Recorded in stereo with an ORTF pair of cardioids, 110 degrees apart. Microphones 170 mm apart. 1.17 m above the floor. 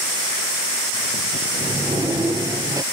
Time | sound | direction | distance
1.5 | a sliding door | 20° right | ?